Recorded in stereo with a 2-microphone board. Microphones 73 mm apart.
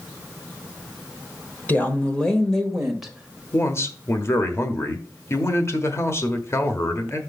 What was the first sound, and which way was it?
A woman speaking, 25° left (ahead or behind).